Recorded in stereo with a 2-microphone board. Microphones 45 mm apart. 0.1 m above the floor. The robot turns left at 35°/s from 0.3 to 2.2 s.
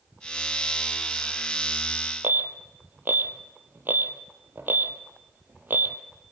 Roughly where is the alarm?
Right.